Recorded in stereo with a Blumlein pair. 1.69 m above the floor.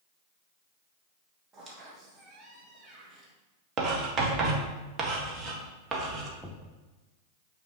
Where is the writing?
30° right, 1.5 m.